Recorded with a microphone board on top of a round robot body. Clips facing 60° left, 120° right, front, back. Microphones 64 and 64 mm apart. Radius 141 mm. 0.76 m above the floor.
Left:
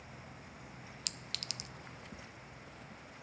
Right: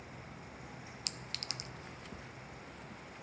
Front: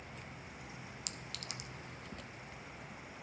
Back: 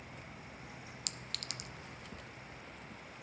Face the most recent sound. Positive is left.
turn(degrees=-175)